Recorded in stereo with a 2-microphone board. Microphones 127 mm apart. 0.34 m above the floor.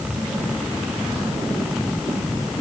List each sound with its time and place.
Only background noise.